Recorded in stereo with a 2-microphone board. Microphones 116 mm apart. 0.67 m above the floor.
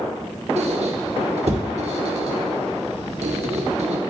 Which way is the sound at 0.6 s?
65° right (ahead or behind).